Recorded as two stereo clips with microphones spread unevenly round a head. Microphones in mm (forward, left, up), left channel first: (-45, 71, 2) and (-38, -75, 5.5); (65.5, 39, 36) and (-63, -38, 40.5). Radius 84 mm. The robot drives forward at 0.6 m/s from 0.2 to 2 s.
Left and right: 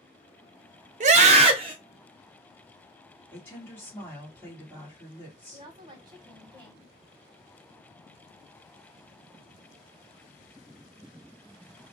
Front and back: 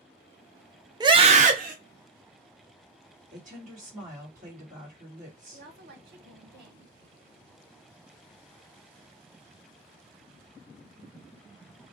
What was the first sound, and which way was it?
A scream, 90° right.